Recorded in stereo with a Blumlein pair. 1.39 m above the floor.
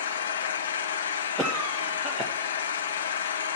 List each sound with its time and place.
0.0 s an engine running: 65° left, 0.8 m
1.4 s a cough: 5° right, 1.0 m